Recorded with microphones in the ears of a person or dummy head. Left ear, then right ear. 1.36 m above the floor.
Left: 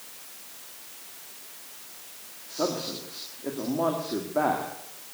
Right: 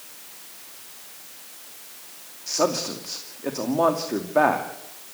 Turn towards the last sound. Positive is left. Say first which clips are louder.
# right 6 dB
turn(degrees=-85)